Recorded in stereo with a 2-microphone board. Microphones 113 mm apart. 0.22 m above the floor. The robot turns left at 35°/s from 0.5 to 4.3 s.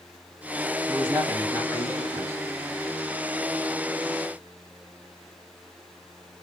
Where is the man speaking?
25° right (ahead or behind), 1.7 m; by 2.4 s 20° right (ahead or behind), 1.7 m.